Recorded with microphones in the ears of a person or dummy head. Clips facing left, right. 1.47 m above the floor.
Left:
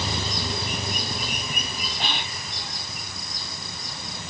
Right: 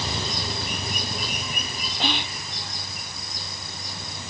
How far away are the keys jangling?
No keys jangling in this recording.